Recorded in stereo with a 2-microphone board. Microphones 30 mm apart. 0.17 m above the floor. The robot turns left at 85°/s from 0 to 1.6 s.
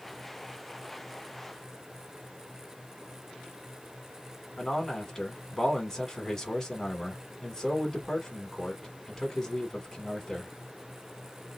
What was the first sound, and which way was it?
A man speaking, 20° left (ahead or behind).